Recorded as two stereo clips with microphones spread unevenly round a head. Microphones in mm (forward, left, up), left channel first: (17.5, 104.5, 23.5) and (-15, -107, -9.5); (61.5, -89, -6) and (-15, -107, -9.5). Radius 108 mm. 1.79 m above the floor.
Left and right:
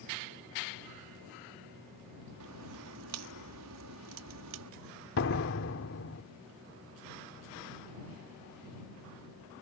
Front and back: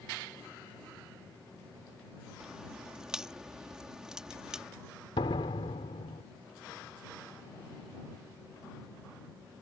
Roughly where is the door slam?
Ahead left.